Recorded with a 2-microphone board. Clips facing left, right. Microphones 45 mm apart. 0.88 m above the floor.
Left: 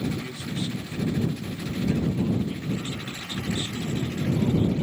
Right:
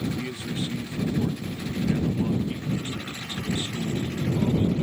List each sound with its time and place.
0.2 s a man speaking: 20° right (ahead or behind)